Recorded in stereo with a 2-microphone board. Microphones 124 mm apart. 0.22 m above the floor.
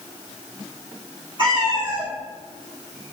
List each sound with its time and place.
1.4 s a cat meowing: 40° right (ahead or behind), 3.5 m; by 3.1 s 45° right (ahead or behind), 5 m